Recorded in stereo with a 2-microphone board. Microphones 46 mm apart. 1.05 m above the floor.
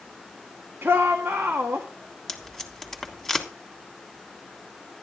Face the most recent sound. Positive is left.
turn(degrees=10)  # may be behind; listen again after turning